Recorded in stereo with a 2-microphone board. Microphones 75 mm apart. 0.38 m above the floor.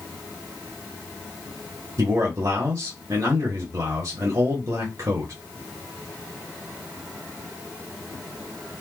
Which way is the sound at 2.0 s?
50° right (ahead or behind).